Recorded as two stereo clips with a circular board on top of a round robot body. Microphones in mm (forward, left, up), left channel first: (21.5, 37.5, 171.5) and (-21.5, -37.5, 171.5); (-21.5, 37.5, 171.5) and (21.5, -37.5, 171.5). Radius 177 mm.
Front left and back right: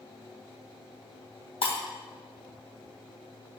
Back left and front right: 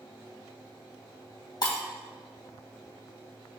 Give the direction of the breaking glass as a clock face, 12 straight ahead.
9 o'clock.